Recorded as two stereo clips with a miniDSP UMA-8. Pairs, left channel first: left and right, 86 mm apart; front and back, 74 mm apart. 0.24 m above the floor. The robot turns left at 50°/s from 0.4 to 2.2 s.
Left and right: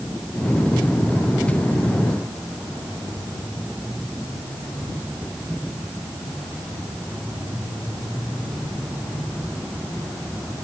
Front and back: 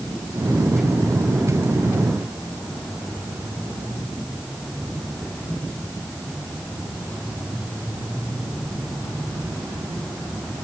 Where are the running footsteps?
No running footsteps in this recording.